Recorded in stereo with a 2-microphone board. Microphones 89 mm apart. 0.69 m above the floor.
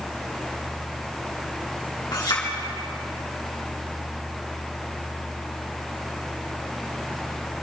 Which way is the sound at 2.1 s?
55° left (ahead or behind).